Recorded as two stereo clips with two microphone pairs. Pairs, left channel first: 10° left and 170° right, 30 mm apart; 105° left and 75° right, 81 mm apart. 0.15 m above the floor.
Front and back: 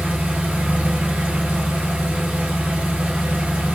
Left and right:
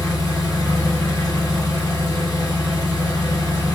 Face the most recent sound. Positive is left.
turn(degrees=150)